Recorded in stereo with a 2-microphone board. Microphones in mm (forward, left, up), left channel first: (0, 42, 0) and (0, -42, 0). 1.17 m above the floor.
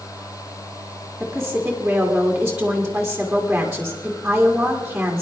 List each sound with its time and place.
1.2 s a woman speaking: 10° right (ahead or behind), 1.9 m